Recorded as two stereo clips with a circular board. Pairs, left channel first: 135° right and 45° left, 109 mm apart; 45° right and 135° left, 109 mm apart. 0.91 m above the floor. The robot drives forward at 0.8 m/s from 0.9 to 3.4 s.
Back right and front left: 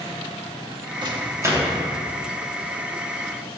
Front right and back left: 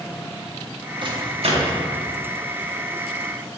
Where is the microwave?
90° left, 1.0 m; by 1.8 s 125° left, 1.2 m.